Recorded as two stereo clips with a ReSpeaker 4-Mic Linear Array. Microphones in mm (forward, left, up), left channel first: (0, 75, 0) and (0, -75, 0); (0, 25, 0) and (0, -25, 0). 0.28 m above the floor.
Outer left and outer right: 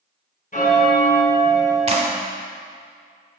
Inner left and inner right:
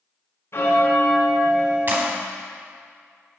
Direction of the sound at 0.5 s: 60° left (ahead or behind).